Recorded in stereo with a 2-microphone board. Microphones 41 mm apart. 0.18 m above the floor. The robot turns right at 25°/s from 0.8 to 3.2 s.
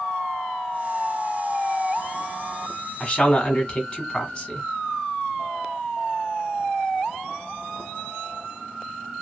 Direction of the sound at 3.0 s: 15° left (ahead or behind).